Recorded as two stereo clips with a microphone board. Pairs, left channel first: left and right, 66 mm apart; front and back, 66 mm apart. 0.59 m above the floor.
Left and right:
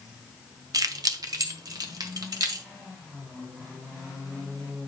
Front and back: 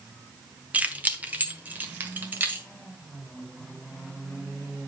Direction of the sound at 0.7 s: 110° right.